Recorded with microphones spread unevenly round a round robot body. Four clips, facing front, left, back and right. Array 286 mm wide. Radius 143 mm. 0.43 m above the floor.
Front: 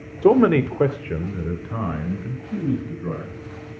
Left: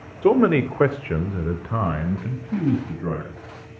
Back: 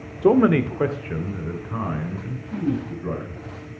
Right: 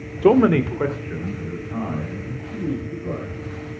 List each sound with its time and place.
0.2 s a man speaking: 35° right, 0.9 m; by 3.4 s 75° left, 3 m